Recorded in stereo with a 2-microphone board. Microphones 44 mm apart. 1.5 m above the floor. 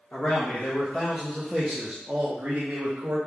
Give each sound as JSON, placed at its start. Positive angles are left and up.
{"t": 0.1, "sound": "a man speaking", "side_deg": 40, "distance_m": 1.1}